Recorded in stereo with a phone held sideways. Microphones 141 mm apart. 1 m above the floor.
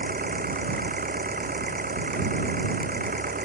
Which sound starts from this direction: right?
An engine running, at 0.0 s.